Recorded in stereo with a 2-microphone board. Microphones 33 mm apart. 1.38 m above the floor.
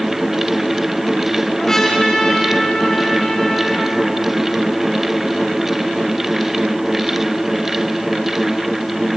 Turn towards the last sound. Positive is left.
turn(degrees=15)  # may be behind; listen again after turning